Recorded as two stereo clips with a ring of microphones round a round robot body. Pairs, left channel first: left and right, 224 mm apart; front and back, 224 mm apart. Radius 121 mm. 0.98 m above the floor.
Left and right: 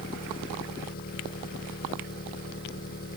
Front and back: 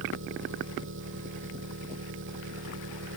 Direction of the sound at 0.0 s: 145° left.